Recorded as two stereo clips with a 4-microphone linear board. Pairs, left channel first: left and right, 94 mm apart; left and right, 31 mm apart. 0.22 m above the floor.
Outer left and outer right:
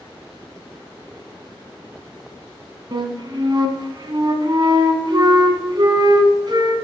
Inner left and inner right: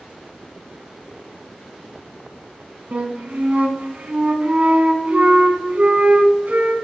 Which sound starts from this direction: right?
A flute, at 2.9 s.